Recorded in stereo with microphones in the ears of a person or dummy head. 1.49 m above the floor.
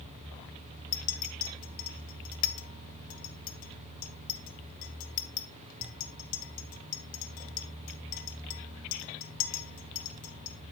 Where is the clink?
45° left (ahead or behind), 0.6 m.